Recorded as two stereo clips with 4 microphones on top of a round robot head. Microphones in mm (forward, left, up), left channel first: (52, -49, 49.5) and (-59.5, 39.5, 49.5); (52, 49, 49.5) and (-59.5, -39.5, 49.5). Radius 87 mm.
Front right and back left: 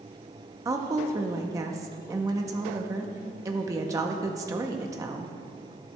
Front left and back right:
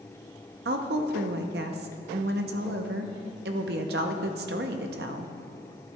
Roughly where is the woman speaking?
Behind right.